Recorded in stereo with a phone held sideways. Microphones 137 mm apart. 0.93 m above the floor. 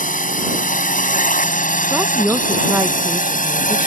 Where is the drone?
75° left (ahead or behind).